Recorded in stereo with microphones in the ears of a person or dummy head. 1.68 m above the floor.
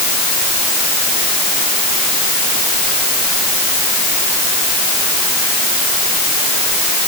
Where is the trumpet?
I don't hear a trumpet.